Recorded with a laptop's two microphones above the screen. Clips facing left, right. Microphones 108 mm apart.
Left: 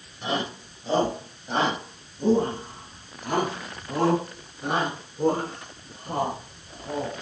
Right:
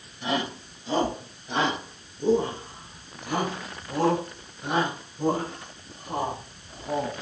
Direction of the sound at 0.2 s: 40° left (ahead or behind).